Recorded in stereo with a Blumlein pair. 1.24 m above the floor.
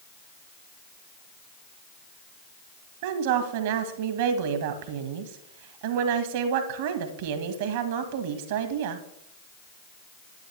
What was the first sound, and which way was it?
A woman speaking, 50° right.